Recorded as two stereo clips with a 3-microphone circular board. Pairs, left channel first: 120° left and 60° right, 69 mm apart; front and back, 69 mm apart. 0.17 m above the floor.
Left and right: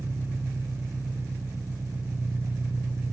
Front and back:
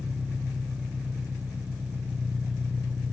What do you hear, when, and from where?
0.0 s an engine running: 105° right, 1.8 m